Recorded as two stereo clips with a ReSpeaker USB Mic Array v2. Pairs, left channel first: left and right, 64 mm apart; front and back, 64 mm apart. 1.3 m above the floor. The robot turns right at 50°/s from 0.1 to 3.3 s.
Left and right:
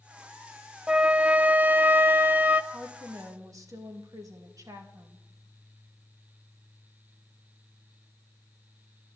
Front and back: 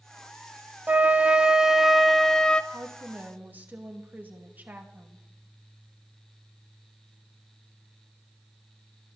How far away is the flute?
About 0.7 m.